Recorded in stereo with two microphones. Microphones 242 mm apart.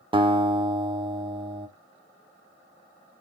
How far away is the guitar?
About 0.8 m.